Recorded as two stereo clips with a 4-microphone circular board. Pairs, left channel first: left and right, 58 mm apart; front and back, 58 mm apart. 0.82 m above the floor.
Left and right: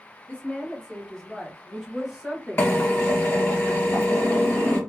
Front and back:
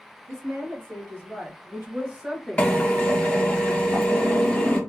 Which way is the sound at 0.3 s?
160° left.